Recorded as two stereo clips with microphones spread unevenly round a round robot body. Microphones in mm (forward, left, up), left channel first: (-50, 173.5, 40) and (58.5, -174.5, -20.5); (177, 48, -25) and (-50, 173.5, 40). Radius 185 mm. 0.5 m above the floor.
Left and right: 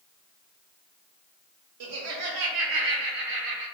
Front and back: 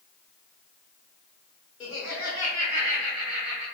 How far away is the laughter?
About 1.0 m.